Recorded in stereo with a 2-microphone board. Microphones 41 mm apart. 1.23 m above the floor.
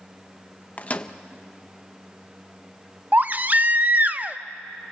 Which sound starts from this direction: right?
A baby crying, at 3.1 s.